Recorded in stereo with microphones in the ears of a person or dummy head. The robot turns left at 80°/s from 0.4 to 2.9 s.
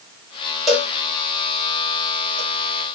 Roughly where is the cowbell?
Centre.